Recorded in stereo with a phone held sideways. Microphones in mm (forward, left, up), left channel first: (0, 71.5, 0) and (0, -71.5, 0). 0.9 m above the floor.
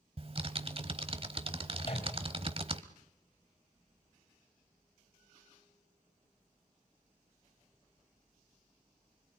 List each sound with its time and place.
0.2 s typing on a keyboard: 40° right (ahead or behind), 1.2 m
1.8 s a microwave: 40° left (ahead or behind), 4 m